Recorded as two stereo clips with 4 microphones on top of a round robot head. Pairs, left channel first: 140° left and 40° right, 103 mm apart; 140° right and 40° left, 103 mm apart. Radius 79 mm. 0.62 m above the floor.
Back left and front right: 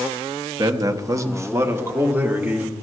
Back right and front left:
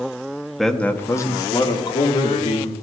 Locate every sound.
0.6 s a man speaking: 50° right, 0.8 m; by 2.7 s 115° right, 1.9 m